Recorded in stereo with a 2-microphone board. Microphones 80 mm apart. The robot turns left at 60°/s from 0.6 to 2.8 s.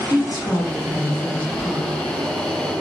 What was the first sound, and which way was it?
A woman speaking, 50° left.